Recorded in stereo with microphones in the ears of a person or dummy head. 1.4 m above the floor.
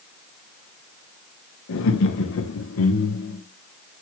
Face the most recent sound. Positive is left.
turn(degrees=70)  # may be behind; listen again after turning